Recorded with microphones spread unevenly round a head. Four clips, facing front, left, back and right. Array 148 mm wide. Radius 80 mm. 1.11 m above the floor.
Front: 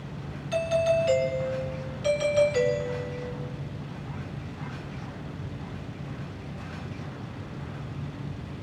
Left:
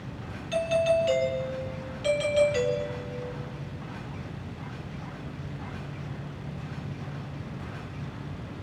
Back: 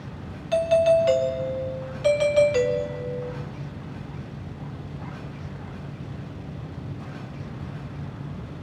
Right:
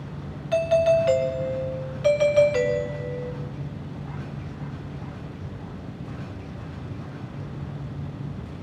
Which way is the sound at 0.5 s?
135° right.